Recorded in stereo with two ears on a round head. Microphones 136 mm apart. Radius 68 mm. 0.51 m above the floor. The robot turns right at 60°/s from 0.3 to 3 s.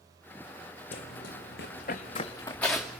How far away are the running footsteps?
About 1.7 m.